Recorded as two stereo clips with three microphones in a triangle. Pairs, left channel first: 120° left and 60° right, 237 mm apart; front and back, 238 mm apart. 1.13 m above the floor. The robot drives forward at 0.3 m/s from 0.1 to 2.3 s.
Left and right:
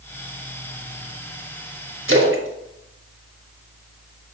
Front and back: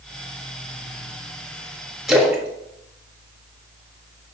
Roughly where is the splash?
Right.